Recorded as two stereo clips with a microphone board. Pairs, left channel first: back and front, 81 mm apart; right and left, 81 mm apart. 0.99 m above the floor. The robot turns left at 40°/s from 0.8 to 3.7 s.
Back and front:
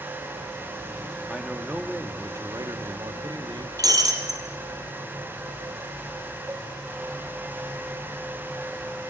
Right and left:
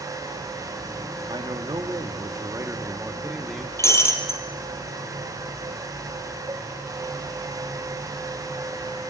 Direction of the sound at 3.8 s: 35° right.